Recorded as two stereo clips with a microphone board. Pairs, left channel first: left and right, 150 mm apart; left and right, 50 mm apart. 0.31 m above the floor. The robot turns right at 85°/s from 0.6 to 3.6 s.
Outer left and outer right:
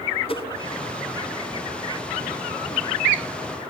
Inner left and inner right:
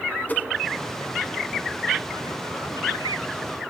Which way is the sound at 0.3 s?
40° left (ahead or behind).